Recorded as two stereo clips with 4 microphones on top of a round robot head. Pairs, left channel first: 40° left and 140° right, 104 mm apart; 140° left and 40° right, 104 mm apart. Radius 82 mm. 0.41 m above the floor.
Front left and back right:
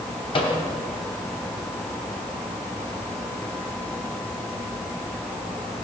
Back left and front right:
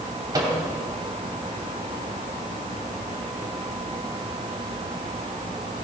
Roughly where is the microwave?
Ahead.